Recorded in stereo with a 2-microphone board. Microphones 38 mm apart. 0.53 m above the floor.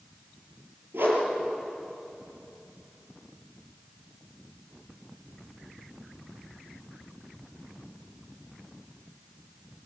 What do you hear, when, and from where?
0.9 s a whoosh: 70° right (ahead or behind), 4.5 m